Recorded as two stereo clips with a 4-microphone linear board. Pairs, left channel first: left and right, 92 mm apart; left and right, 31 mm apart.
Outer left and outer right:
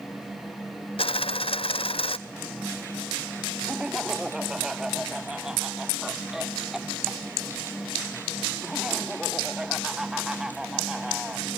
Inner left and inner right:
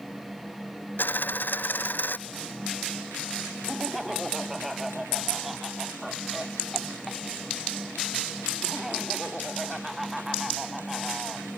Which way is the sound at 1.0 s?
80° left.